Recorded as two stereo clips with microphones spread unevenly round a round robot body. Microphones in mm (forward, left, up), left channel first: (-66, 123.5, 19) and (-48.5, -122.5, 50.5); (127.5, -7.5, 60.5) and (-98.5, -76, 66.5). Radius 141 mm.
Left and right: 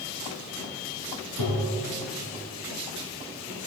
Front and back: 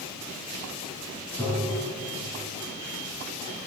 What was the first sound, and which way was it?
Tapping, 95° left.